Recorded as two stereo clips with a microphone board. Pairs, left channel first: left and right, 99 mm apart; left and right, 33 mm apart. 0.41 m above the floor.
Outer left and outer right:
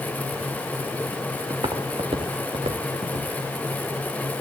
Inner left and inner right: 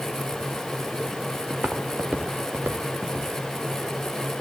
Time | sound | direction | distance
1.5 | footsteps | 45° right (ahead or behind) | 1.4 m